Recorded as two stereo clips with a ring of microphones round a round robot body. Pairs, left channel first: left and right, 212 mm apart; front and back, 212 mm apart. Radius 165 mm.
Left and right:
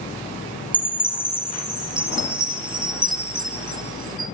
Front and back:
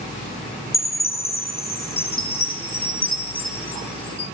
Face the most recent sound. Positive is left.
turn(degrees=-20)